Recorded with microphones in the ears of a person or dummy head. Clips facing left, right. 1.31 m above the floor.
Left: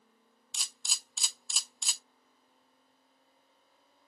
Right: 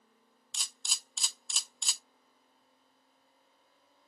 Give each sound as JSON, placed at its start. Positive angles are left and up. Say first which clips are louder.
{"t": 0.5, "sound": "a camera shutter", "louder": "even", "side_deg": 5, "distance_m": 0.9}